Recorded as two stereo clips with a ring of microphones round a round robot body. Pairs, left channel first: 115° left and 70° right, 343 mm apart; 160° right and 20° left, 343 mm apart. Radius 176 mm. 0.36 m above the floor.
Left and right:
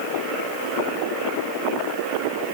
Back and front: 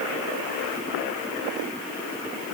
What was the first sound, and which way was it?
Only background noise.